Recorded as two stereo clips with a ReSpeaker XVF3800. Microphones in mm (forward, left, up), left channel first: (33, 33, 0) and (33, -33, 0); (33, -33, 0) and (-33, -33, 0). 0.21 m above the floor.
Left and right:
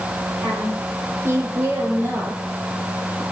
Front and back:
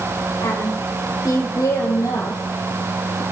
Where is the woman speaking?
35° right, 9 m; by 3.2 s 30° right, 6.5 m.